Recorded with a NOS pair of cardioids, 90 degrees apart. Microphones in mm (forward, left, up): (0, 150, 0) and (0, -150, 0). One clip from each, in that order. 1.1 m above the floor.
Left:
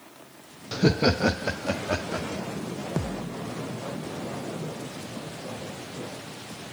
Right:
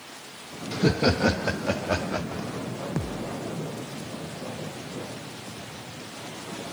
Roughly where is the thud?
Ahead.